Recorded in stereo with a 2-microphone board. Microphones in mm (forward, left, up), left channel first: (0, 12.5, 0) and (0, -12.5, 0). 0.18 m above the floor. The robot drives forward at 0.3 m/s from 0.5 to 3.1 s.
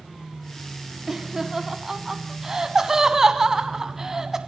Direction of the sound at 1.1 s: 20° right (ahead or behind).